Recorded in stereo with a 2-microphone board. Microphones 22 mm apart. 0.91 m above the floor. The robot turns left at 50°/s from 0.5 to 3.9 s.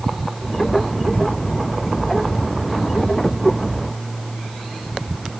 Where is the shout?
I don't hear a shout.